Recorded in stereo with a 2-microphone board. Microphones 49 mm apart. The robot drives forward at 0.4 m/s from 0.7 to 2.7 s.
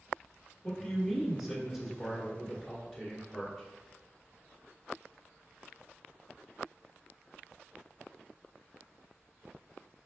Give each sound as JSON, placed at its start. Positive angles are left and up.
{"t": 0.6, "sound": "a man speaking", "side_deg": 0, "distance_m": 1.2}